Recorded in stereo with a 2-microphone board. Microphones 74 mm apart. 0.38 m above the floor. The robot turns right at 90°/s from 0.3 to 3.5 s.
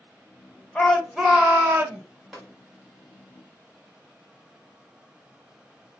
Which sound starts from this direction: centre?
Tapping, at 2.3 s.